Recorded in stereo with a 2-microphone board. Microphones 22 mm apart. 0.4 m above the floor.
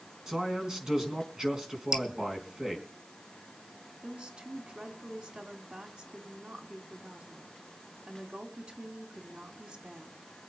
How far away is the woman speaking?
About 3 m.